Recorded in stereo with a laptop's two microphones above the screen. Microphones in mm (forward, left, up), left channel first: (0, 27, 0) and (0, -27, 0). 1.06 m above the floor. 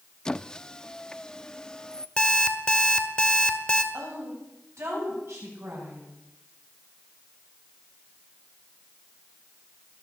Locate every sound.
0.2 s a squeak: 15° left (ahead or behind), 0.5 m
2.2 s an alarm clock: 20° left (ahead or behind), 1.5 m
3.9 s a woman speaking: 60° right (ahead or behind), 7.5 m